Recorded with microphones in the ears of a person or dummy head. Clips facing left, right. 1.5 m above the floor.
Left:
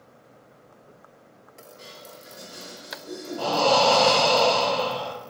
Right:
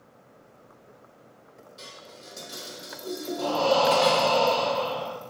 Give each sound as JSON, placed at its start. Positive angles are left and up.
{"t": 1.8, "sound": "dishes clattering", "side_deg": -50, "distance_m": 1.1}
{"t": 3.4, "sound": "breathing", "side_deg": 70, "distance_m": 0.6}